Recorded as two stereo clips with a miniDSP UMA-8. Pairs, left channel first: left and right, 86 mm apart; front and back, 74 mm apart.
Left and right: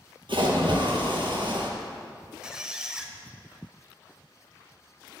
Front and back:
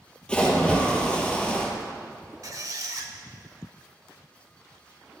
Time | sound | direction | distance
0.3 | a splash | 75° right | 2 m
2.4 | a squeak | 170° right | 0.9 m